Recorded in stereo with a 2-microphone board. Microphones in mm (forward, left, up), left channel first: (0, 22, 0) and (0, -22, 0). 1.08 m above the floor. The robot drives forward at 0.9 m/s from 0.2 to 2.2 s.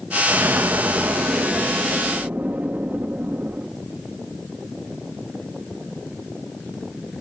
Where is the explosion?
60° right (ahead or behind), 1.3 m; by 3.7 s 40° right (ahead or behind), 1.7 m.